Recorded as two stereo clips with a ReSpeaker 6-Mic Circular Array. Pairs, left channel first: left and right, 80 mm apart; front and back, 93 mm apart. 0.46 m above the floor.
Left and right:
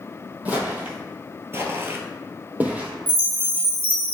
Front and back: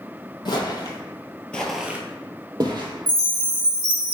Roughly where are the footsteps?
Ahead.